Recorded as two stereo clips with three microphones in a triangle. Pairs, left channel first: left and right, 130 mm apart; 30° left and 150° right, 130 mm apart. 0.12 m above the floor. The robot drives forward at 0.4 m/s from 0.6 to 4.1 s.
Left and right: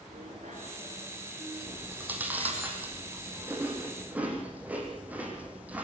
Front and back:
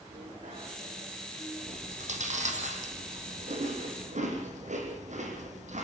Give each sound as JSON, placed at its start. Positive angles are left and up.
{"t": 0.1, "sound": "a bicycle bell", "azimuth_deg": -120, "distance_m": 9.0}
{"t": 1.7, "sound": "chewing", "azimuth_deg": -165, "distance_m": 4.0}